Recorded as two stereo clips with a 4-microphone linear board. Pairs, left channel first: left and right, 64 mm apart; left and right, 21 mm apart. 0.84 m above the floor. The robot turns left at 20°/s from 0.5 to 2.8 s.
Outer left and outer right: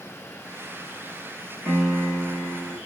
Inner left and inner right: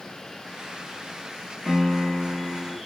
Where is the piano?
25° right (ahead or behind), 1.3 m; by 2.8 s 5° right (ahead or behind), 1.3 m.